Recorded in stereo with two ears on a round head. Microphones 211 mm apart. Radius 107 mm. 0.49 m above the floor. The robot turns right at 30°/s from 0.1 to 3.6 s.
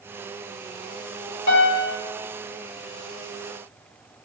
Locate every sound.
1.5 s a piano: 55° left (ahead or behind), 1.8 m; by 2.0 s 60° left (ahead or behind), 1.8 m